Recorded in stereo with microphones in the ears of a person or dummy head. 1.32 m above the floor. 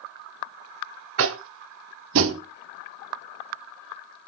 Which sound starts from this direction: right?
Tapping, at 1.2 s.